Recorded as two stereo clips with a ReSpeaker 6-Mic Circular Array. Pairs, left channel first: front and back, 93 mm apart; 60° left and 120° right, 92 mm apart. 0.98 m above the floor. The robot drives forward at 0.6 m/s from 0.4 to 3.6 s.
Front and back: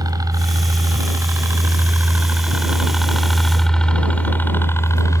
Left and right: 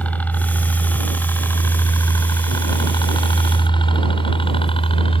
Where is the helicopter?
135° left; by 5.2 s 55° left.